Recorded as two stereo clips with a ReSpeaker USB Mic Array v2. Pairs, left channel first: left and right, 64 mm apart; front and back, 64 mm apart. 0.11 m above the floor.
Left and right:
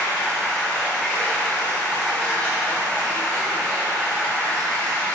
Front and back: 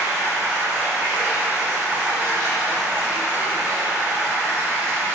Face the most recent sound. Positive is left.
turn(degrees=155)